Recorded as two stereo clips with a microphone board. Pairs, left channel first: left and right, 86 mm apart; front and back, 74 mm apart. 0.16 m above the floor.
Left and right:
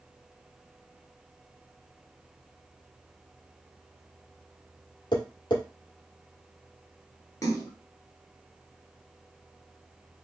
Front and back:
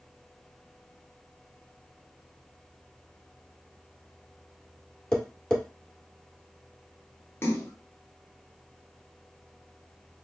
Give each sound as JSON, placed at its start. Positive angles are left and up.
{"t": 5.1, "sound": "tapping", "azimuth_deg": 80, "distance_m": 1.6}
{"t": 7.4, "sound": "a splash", "azimuth_deg": 50, "distance_m": 1.2}